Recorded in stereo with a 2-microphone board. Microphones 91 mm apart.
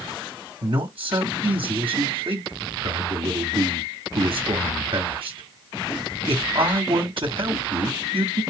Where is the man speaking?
65° right (ahead or behind), 1.2 m.